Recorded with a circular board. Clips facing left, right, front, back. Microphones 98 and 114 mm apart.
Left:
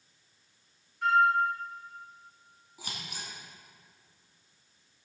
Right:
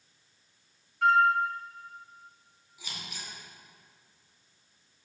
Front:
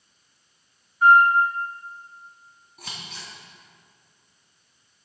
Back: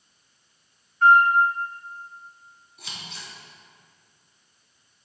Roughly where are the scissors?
Ahead left.